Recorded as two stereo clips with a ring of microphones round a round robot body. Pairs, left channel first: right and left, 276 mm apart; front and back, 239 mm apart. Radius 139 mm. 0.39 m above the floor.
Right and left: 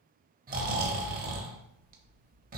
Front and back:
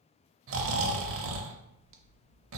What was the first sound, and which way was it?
Snoring, 150° left.